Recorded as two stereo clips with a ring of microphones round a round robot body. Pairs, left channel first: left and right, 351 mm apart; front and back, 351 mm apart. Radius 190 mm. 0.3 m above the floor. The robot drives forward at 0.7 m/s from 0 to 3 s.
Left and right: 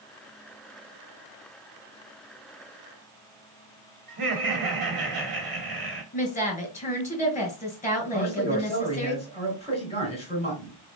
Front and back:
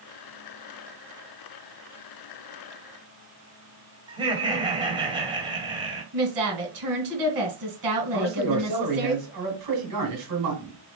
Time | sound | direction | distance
4.1 | laughter | 105° right | 1.5 m
6.1 | a woman speaking | 155° left | 2 m
8.1 | a man speaking | 160° left | 2.5 m